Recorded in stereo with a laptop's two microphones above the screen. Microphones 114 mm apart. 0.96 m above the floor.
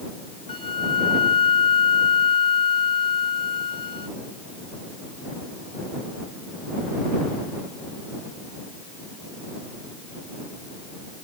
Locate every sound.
0.5 s a flute: 55° left (ahead or behind)